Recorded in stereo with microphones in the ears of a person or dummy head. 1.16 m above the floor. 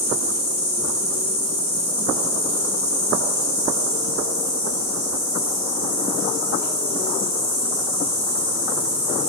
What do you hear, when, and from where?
0.0 s an insect: 10° left (ahead or behind), 1.6 m